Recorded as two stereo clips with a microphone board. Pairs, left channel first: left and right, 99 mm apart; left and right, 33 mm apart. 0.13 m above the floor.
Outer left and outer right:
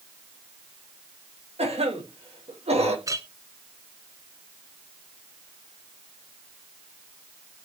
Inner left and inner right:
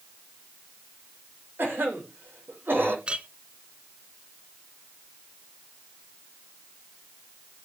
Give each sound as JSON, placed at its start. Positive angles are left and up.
{"t": 1.6, "sound": "a cough", "side_deg": -80, "distance_m": 7.0}
{"t": 3.1, "sound": "a clink", "side_deg": -30, "distance_m": 1.2}